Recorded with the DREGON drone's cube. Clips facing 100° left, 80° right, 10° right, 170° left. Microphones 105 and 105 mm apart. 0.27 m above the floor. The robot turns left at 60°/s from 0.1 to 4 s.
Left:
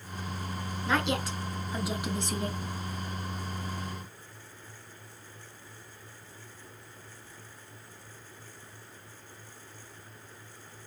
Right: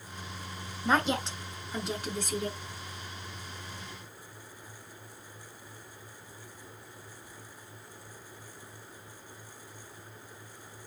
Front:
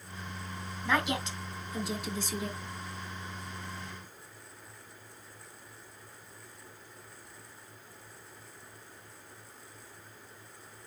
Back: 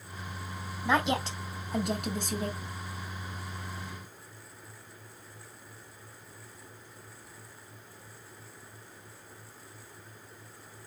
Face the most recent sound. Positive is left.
turn(degrees=55)